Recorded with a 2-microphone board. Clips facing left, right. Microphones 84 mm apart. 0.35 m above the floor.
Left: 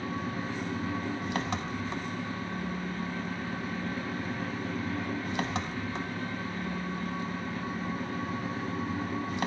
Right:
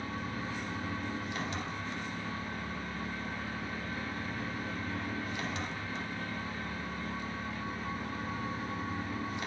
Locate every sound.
0.0 s an engine running: 80° left, 0.7 m